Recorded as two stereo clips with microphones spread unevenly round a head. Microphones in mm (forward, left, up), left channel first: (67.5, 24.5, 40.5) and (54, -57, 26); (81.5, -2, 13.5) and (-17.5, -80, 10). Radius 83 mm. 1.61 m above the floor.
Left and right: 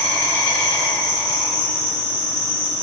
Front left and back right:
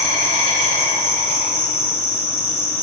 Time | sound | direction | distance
0.0 | an insect | 115° left | 1.1 m